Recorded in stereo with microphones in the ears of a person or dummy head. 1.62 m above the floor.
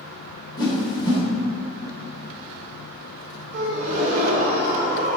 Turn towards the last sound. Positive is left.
turn(degrees=-45)  # may be behind; listen again after turning